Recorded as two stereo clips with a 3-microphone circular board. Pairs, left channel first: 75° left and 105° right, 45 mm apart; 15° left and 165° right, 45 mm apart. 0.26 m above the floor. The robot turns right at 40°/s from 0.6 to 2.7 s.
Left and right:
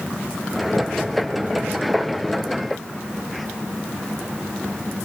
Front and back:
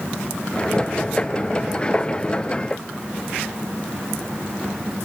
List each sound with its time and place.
Only background noise.